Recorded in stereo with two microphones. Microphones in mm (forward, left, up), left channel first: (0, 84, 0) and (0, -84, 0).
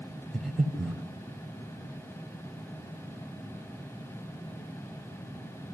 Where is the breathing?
Centre (ahead or behind), 2 m.